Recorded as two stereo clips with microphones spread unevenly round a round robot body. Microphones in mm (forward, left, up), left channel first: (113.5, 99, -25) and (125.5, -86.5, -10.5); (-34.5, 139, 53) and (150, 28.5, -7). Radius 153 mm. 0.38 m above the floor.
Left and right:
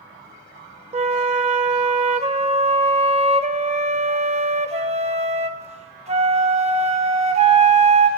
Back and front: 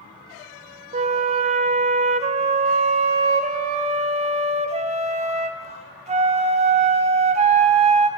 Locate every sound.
0.9 s a flute: 40° right, 0.6 m